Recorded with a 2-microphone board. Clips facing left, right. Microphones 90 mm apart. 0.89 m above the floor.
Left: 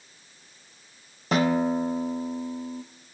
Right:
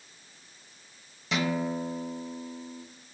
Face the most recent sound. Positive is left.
turn(degrees=45)  # may be behind; listen again after turning